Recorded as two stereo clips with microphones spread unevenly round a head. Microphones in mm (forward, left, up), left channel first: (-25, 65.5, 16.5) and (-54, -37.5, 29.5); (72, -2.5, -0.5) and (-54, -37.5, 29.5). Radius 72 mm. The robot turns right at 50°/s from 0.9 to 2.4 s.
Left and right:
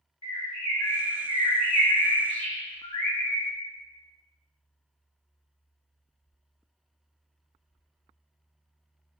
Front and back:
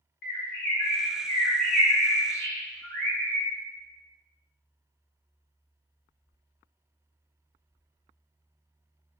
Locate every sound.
0.2 s a bird: 15° left, 0.8 m; by 3.5 s 90° left, 0.8 m